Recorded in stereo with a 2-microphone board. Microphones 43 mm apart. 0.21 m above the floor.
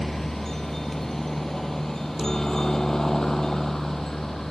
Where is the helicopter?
10° left (ahead or behind).